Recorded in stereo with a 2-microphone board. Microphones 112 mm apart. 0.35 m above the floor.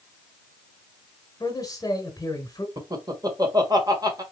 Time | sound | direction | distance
1.4 | a man speaking | 35° left (ahead or behind) | 1.3 m
2.8 | laughter | 35° right (ahead or behind) | 1.1 m